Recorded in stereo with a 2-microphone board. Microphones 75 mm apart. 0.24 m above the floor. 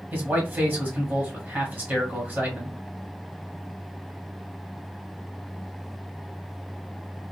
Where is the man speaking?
25° right (ahead or behind), 1.1 m.